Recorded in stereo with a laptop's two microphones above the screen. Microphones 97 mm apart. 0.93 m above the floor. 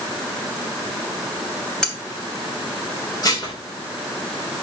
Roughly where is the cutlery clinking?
Centre.